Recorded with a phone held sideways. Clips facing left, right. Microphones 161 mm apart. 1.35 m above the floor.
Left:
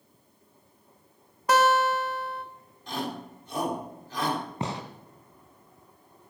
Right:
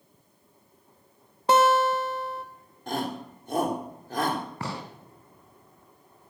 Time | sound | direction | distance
1.5 | a guitar | 30° right (ahead or behind) | 1.8 m
2.9 | a shout | 55° right (ahead or behind) | 4 m
4.6 | a gunshot | 20° left (ahead or behind) | 2.5 m